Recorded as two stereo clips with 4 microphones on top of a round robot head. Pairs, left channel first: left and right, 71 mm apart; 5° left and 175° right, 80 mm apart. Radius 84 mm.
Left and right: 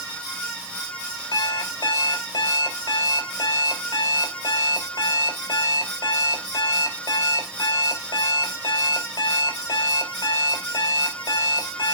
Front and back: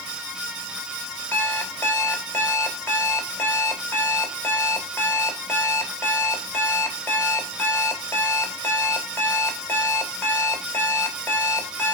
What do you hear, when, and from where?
1.3 s an alarm clock: 75° left, 3 m